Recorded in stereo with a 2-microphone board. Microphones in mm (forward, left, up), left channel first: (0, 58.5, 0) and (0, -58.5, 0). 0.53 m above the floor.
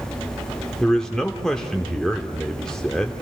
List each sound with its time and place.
0.8 s a man speaking: 5° left (ahead or behind), 0.9 m